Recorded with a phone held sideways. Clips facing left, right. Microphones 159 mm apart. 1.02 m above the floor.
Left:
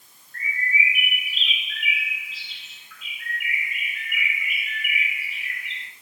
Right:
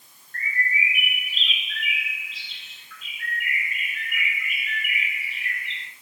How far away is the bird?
About 2.5 m.